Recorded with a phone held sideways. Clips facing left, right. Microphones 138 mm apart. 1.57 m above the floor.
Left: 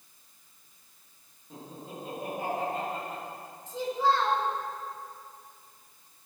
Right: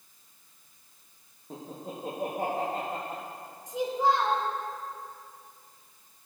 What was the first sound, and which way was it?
Laughter, 50° right (ahead or behind).